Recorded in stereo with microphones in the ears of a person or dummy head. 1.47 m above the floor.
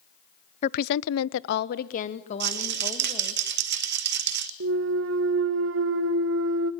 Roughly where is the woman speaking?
Left.